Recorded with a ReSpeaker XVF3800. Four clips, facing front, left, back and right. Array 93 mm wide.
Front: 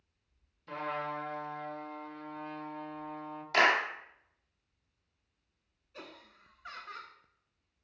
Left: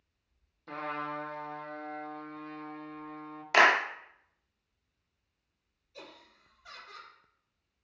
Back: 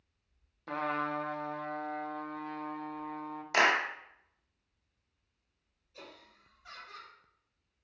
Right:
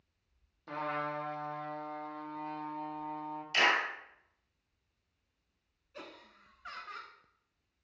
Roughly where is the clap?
Left.